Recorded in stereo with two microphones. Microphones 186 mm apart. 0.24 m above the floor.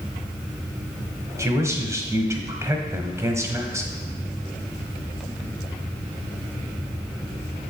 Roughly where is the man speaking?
Centre.